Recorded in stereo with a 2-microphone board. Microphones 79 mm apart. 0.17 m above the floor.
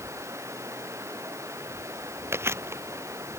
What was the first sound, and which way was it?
Running water, 40° right (ahead or behind).